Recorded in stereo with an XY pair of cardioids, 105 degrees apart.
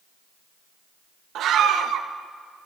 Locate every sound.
1.4 s a scream: 70° right, 1.1 m